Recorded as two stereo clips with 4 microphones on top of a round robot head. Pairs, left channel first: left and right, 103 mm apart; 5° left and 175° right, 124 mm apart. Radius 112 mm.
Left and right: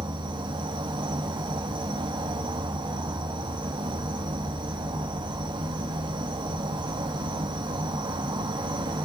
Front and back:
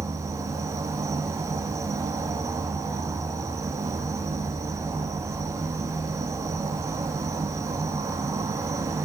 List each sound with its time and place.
0.0 s an insect: 115° right, 1.3 m